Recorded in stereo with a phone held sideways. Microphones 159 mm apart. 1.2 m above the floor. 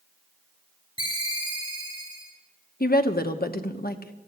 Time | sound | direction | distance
1.0 | a ringtone | 30° left (ahead or behind) | 4 m
2.8 | a woman speaking | 70° left (ahead or behind) | 1.1 m